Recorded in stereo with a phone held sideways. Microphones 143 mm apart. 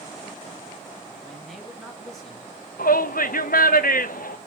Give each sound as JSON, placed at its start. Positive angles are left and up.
{"t": 1.2, "sound": "a man speaking", "side_deg": 0, "distance_m": 2.5}
{"t": 2.8, "sound": "a shout", "side_deg": 85, "distance_m": 0.9}